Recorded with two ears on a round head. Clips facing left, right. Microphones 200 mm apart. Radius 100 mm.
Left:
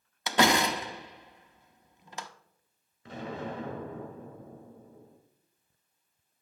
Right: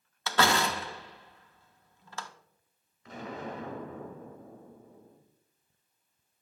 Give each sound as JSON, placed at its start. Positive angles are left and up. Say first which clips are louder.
{"t": 0.3, "sound": "a door slam", "louder": "left 3 dB", "side_deg": 15, "distance_m": 0.6}
{"t": 3.0, "sound": "an explosion", "louder": "left 2 dB", "side_deg": 30, "distance_m": 2.0}